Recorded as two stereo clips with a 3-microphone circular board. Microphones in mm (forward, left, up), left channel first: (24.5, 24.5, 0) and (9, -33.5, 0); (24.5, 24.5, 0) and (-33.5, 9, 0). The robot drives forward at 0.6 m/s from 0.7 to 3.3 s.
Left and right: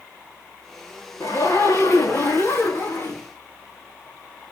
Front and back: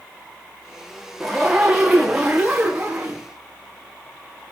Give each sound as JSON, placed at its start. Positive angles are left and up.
{"t": 1.2, "sound": "a zipper", "azimuth_deg": 105, "distance_m": 3.5}